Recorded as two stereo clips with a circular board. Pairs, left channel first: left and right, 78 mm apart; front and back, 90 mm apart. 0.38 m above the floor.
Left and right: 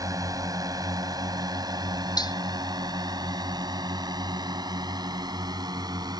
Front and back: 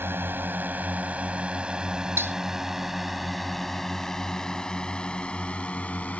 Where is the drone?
120° right; by 6.2 s 70° right.